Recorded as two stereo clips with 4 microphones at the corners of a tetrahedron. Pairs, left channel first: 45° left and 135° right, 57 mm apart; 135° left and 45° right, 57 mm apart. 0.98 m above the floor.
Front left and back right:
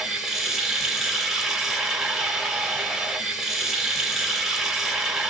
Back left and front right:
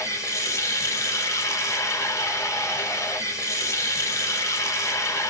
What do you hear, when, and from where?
0.0 s running water: 145° left, 1.7 m